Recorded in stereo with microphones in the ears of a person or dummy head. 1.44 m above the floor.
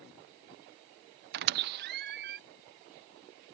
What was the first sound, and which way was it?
A squeak, 60° right (ahead or behind).